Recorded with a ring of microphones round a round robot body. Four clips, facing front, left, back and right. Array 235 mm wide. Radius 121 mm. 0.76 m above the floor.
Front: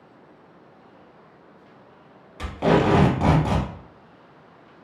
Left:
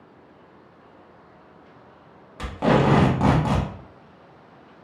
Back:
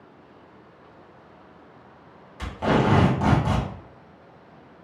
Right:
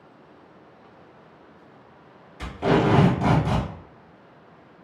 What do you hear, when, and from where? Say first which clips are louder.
2.4 s tape being pulled: left 1 dB, front 2 dB; 70° left, 1.2 m